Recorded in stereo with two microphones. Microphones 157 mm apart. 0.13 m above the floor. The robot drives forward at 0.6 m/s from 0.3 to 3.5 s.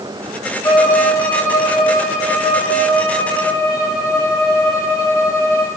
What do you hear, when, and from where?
0.6 s a violin: 25° left (ahead or behind), 2.5 m; by 5.7 s 15° left (ahead or behind), 4 m